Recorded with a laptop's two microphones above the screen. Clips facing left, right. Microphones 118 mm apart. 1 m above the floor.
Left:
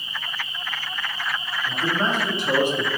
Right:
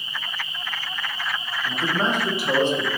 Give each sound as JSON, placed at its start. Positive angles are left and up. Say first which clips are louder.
{"t": 1.6, "sound": "a man speaking", "louder": "even", "side_deg": -30, "distance_m": 1.1}